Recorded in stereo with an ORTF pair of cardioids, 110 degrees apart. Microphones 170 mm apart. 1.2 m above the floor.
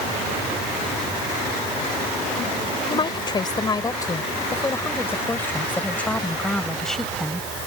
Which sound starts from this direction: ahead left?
A woman speaking, at 2.9 s.